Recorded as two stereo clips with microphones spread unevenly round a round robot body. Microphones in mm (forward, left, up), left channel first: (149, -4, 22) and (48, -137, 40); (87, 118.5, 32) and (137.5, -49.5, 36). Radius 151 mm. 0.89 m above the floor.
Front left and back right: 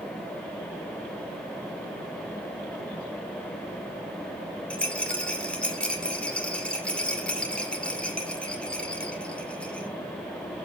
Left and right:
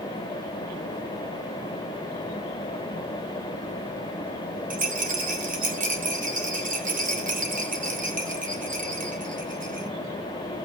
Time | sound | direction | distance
4.7 | a rattle | 30° right | 2 m